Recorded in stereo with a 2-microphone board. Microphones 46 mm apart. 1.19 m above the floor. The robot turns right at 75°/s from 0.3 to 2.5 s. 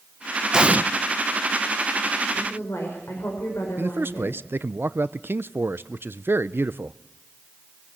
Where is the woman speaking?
55° left (ahead or behind), 5 m; by 4.4 s 70° left (ahead or behind), 5 m.